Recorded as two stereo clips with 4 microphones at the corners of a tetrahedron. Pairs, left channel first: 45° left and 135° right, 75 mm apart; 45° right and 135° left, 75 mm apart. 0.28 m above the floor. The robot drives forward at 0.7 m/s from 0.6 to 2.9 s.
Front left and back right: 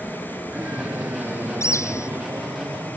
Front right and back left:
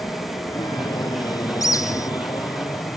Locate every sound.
0.0 s an aircraft: 70° right; by 3.0 s 75° right
1.6 s a bird: 5° right